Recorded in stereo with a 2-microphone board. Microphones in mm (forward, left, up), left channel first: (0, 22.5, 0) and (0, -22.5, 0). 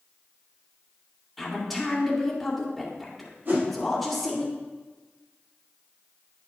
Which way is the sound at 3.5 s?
55° right (ahead or behind).